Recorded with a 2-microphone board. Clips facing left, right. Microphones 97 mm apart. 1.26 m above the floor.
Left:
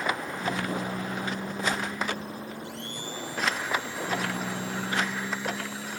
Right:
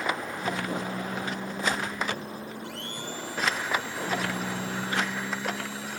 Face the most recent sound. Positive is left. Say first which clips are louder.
# right 1 dB
turn(degrees=-75)  # may be behind; listen again after turning